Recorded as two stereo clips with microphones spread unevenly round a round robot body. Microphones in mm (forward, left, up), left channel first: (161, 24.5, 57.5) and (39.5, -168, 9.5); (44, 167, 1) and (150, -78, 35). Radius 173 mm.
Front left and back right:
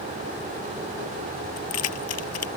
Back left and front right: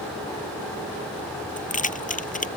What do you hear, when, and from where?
1.6 s keys jangling: 50° left